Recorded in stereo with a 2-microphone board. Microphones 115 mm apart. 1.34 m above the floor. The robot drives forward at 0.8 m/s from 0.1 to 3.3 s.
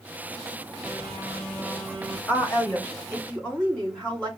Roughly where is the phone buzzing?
Centre.